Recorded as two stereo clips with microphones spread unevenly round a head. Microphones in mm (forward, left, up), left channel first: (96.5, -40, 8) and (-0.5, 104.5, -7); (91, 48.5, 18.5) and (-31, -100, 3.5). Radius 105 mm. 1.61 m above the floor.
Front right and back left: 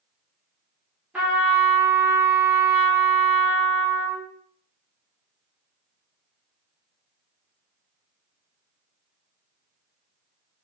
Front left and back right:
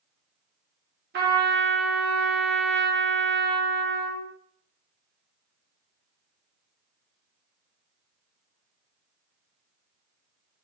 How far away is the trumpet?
About 0.9 m.